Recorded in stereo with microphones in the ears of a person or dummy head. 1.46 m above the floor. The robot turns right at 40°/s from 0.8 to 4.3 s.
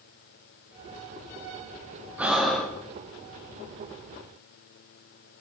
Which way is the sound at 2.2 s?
10° right (ahead or behind).